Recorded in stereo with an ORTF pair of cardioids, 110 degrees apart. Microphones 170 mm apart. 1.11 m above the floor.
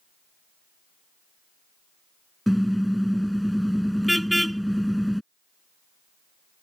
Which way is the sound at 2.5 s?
Straight ahead.